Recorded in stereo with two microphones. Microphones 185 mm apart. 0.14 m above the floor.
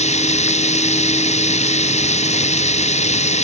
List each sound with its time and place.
0.0 s running water: 35° left (ahead or behind)